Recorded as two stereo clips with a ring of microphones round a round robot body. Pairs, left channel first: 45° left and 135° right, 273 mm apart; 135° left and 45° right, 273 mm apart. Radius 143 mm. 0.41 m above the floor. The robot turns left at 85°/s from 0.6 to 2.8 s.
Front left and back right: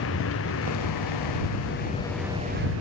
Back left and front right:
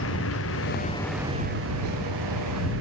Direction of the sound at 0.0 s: 90° left.